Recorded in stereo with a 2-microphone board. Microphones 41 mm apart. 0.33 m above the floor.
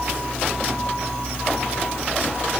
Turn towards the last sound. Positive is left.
No sound to turn to.